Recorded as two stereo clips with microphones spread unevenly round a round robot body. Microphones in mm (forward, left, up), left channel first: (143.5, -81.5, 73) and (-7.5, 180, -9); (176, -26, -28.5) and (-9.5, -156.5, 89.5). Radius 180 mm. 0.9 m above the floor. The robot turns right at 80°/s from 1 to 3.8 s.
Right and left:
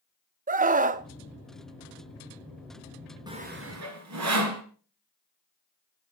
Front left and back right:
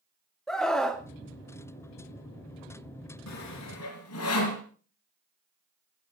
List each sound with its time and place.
0.5 s a scream: 90° left, 0.8 m; by 1.0 s 95° left, 0.8 m
3.3 s sawing: 40° left, 3 m; by 4.6 s 85° left, 3 m